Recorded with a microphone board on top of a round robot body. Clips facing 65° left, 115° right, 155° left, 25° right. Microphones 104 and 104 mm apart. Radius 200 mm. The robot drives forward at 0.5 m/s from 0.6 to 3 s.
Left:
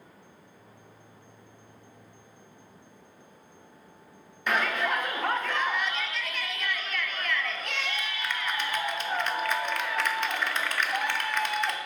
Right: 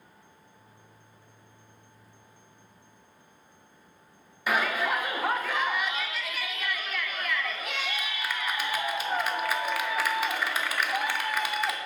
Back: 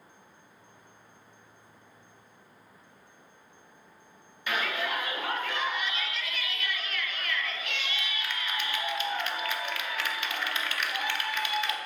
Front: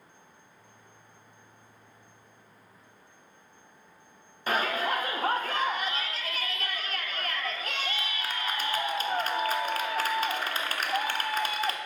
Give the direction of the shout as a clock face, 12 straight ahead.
1 o'clock.